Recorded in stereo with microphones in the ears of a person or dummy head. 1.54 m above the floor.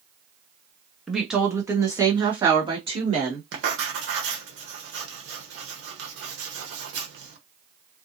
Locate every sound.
1.1 s a woman speaking: 5° left (ahead or behind), 0.7 m; by 3.4 s 30° right (ahead or behind), 1.9 m
3.5 s writing: 70° right (ahead or behind), 1.0 m